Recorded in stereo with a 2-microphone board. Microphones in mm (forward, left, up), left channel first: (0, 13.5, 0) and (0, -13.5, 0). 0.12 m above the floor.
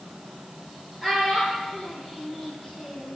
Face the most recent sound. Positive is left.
turn(degrees=5)  # may be behind; listen again after turning